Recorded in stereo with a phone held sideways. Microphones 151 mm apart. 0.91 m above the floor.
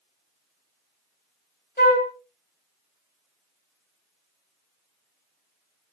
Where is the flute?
80° left, 1.9 m.